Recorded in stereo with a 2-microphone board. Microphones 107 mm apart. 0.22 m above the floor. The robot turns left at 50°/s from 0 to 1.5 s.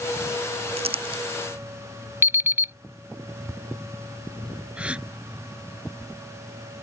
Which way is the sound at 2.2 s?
25° right (ahead or behind).